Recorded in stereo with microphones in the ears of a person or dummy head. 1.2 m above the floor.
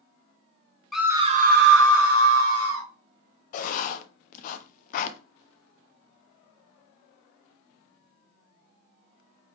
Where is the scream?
Centre (ahead or behind), 0.6 m; by 2.9 s 80° right, 1.7 m.